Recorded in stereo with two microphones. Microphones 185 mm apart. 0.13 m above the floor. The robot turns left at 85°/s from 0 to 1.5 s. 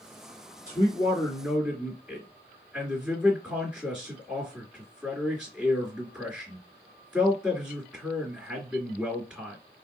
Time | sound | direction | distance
0.7 | a man speaking | 60° left | 2 m